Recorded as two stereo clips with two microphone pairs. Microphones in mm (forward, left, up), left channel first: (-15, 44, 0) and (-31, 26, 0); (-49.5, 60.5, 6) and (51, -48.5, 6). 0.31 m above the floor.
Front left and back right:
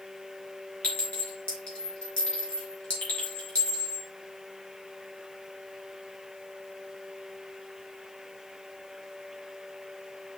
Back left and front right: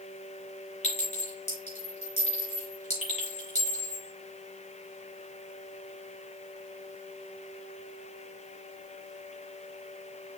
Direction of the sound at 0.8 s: 90° left.